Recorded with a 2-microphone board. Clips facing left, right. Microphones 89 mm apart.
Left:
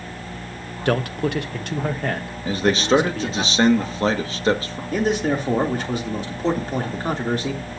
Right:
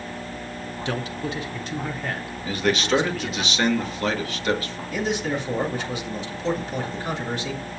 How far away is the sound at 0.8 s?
About 0.8 m.